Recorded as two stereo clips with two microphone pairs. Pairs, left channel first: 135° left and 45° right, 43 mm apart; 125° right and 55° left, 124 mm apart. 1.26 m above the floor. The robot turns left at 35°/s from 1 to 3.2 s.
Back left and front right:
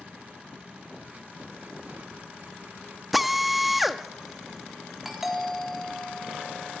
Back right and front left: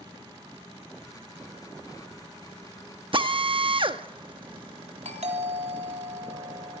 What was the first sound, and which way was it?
A drill, 40° left.